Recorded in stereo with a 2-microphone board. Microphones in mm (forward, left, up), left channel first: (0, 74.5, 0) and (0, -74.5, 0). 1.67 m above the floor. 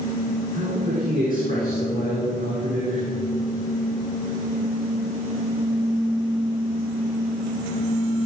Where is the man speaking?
70° right (ahead or behind), 5 m.